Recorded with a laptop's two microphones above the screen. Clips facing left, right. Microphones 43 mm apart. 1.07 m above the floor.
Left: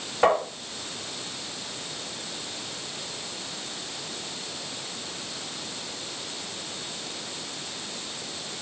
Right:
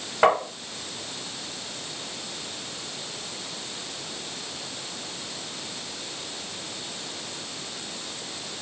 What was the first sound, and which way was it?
Tapping, 25° right (ahead or behind).